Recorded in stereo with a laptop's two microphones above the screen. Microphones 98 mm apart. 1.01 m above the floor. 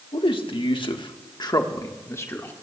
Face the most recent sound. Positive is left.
turn(degrees=25)  # may be behind; listen again after turning